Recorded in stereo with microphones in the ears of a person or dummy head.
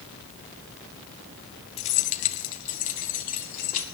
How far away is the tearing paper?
No tearing paper in this recording.